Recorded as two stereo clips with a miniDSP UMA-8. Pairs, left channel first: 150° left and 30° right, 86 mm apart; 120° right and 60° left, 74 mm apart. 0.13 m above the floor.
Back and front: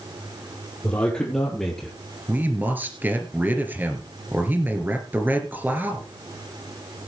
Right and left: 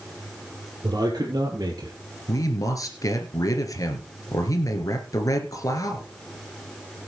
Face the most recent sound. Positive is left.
turn(degrees=-95)